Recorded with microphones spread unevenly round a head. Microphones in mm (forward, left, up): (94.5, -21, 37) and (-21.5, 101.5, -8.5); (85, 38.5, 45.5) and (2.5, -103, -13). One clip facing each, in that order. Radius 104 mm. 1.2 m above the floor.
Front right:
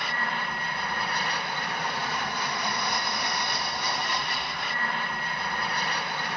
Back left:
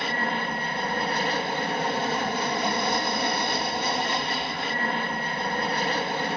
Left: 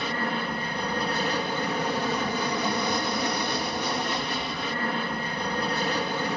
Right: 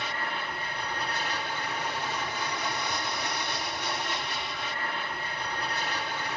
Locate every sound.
0.0 s an aircraft: 85° left